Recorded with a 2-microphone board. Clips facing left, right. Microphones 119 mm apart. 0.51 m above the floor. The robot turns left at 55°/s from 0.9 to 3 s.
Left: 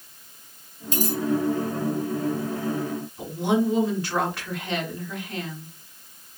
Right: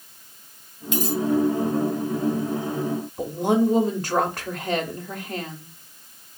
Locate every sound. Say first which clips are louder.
0.9 s a dropped coin: right 2 dB; 40° left (ahead or behind), 1.3 m; by 1.2 s 55° left (ahead or behind), 1.3 m
3.2 s a woman speaking: right 2 dB; 40° right (ahead or behind), 0.9 m